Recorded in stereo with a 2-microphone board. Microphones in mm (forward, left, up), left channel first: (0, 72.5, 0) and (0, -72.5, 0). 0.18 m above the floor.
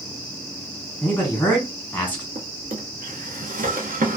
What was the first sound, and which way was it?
A man speaking, 10° left (ahead or behind).